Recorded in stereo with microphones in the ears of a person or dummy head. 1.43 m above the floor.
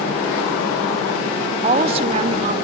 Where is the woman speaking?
30° right (ahead or behind), 0.6 m.